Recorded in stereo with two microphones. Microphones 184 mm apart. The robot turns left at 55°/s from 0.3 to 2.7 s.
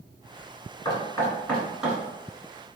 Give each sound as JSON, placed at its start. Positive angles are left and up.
{"t": 0.8, "sound": "knocking", "side_deg": 25, "distance_m": 1.2}